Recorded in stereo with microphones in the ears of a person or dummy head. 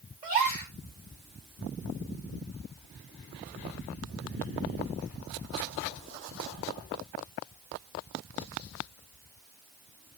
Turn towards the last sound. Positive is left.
turn(degrees=-35)  # may be behind; listen again after turning